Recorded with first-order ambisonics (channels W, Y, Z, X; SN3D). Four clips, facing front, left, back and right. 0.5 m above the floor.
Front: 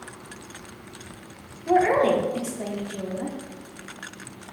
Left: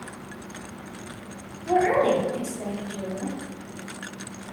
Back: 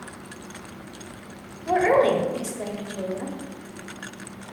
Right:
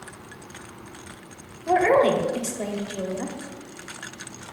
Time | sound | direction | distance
1.7 | a woman speaking | 100° right | 1.1 m